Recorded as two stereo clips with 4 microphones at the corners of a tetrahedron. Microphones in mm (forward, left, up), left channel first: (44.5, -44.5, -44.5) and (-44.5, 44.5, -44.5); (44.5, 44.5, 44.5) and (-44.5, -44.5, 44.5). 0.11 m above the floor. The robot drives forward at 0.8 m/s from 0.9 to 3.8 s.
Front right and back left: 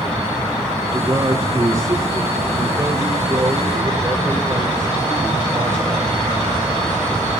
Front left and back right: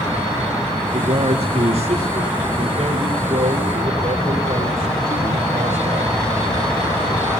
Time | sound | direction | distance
0.9 | a man speaking | 165° right | 6.5 m